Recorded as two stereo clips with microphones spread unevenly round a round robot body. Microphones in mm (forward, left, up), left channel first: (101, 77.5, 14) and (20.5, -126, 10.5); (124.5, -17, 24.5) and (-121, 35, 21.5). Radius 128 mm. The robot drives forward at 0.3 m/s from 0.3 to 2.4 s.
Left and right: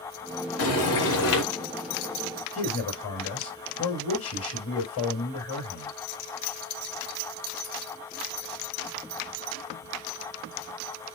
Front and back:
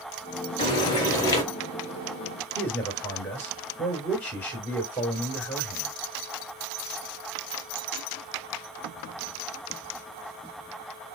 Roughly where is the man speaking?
Left.